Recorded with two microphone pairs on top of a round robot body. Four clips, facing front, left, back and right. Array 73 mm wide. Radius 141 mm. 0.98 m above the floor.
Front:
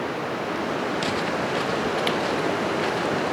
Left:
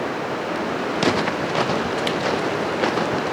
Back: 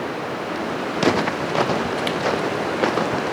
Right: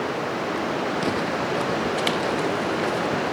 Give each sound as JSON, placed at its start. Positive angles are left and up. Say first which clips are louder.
{"t": 0.9, "sound": "footsteps", "louder": "left 4 dB, back 5 dB", "azimuth_deg": 170}